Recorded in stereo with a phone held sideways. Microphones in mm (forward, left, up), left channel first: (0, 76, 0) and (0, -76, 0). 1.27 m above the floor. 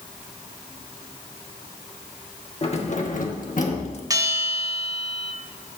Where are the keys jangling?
45° left (ahead or behind), 1.3 m; by 4.0 s 40° left (ahead or behind), 1.2 m.